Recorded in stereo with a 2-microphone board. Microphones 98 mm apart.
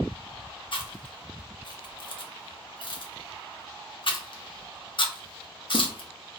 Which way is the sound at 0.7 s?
60° left (ahead or behind).